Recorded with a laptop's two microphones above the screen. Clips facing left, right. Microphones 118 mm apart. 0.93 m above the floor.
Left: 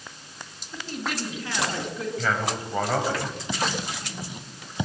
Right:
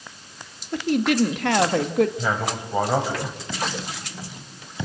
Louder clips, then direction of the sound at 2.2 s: Right 1 dB; 15° right (ahead or behind).